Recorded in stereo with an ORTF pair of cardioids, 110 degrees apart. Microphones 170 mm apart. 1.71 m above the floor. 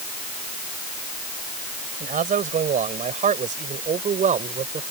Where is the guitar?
I don't hear a guitar.